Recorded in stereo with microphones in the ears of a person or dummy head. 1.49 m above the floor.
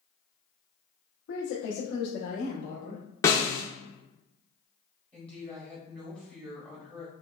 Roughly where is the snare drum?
Centre.